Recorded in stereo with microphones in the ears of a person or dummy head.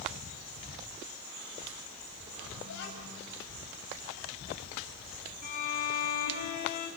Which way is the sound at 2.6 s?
70° left (ahead or behind).